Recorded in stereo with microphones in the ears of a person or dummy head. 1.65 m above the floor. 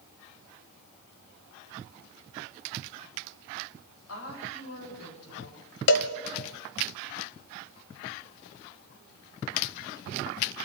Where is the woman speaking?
90° left, 8.5 m.